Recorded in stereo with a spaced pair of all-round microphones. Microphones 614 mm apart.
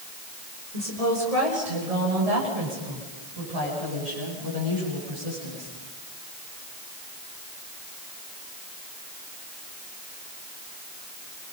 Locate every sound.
0.7 s a woman speaking: 70° right (ahead or behind), 5.5 m; by 5.7 s 85° right, 12.5 m